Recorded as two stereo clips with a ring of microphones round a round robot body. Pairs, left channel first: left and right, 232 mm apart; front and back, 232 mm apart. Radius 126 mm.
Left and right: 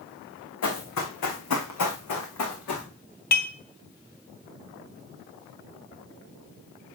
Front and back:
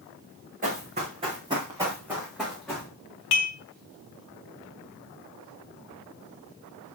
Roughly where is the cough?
No cough in this recording.